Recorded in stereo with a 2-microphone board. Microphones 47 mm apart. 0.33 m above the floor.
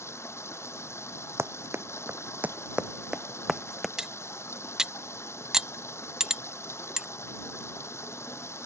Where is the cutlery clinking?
15° right (ahead or behind).